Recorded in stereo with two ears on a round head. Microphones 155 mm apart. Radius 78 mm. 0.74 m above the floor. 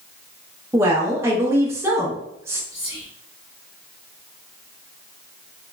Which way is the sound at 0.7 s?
15° right (ahead or behind).